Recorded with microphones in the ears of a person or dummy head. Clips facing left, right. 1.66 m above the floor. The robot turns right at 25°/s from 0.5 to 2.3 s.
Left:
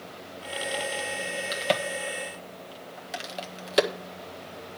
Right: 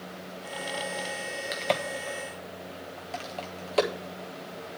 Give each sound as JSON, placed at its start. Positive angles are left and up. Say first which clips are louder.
{"t": 1.5, "sound": "a crack", "louder": "left 1 dB", "side_deg": 0, "distance_m": 1.4}